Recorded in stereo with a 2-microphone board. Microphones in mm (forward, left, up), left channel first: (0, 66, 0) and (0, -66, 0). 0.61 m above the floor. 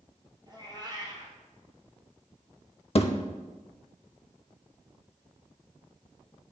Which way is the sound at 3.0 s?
50° left (ahead or behind).